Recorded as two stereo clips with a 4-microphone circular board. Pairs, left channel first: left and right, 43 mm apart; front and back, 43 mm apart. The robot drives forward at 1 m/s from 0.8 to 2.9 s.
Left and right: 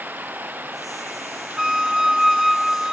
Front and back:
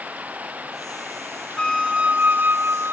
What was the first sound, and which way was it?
Running water, 130° right.